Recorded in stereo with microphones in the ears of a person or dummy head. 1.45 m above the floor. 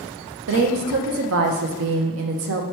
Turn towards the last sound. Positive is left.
turn(degrees=-75)  # may be behind; listen again after turning